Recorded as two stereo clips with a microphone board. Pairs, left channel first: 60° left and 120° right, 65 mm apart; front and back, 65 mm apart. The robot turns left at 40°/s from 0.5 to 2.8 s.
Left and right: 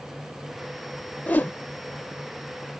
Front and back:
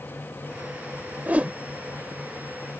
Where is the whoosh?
120° left; by 1.5 s 110° left.